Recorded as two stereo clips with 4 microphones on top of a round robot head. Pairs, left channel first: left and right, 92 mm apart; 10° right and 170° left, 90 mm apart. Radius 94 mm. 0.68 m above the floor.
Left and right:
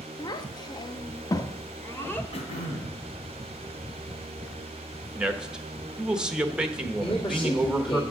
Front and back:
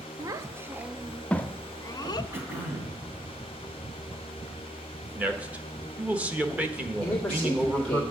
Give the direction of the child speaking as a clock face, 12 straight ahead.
8 o'clock.